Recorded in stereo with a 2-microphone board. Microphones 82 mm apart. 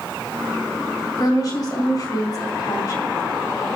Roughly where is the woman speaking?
Left.